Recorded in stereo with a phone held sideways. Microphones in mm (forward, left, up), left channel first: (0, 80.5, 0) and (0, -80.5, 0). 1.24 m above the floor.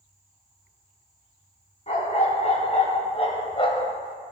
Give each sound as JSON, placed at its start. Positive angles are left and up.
{"t": 1.9, "sound": "a dog barking", "side_deg": 45, "distance_m": 3.0}